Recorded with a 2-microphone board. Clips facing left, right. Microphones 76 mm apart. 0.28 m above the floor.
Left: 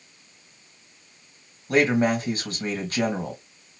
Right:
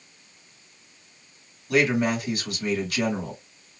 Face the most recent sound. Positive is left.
turn(degrees=35)  # may be behind; listen again after turning